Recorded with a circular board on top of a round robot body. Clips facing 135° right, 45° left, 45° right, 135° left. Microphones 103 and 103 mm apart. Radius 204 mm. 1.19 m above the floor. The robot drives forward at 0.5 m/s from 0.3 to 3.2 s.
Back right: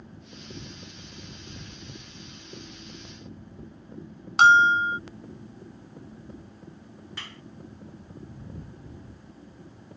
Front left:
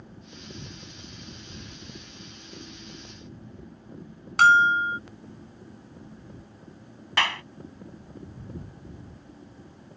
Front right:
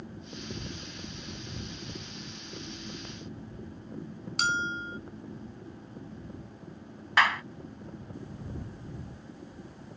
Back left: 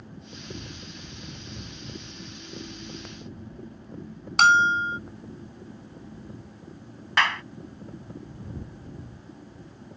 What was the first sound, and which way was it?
A bell, 155° left.